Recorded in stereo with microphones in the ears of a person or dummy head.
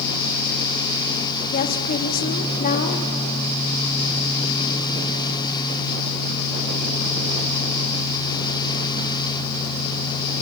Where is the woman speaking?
40° left (ahead or behind), 2 m.